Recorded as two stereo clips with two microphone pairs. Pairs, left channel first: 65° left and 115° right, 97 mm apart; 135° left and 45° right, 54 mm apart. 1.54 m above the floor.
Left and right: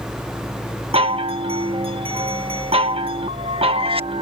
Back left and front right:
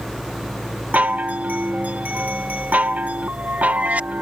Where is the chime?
100° right.